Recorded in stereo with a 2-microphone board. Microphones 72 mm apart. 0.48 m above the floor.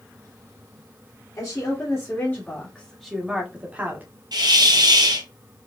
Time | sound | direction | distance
1.4 | a woman speaking | 50° left (ahead or behind) | 1.6 m
4.3 | a hiss | 80° right | 1.4 m